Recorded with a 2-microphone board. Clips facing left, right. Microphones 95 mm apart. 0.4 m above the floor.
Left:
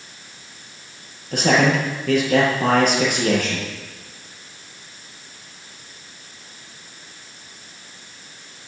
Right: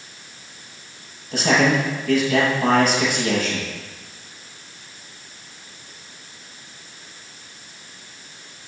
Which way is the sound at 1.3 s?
50° left (ahead or behind).